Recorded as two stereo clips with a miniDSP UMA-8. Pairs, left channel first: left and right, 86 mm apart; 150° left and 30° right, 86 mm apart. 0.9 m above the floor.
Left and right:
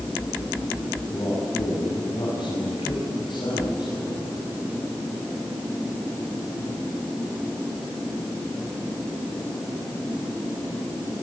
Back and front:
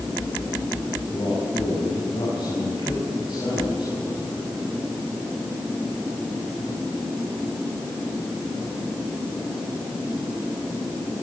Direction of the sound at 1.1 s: 125° left.